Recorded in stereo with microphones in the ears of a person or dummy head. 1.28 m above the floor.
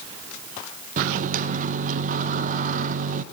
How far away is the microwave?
About 0.6 m.